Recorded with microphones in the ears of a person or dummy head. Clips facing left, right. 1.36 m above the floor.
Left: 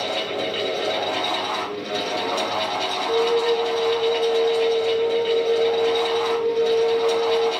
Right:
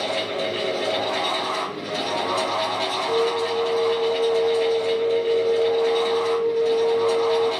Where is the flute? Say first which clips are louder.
Left 3 dB; 10° right (ahead or behind), 1.2 m.